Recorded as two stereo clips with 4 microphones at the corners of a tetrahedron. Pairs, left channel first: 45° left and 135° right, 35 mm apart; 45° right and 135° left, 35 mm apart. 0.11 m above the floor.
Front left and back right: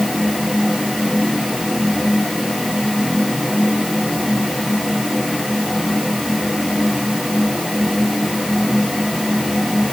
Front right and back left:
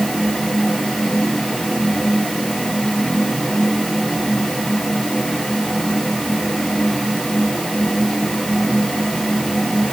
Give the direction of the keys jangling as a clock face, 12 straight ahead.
I don't hear keys jangling.